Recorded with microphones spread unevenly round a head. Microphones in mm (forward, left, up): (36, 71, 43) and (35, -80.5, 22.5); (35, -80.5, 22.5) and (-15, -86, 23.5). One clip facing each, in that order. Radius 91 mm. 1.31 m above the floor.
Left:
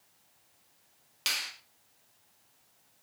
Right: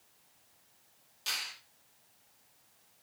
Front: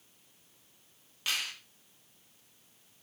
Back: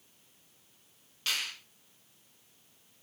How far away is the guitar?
I don't hear a guitar.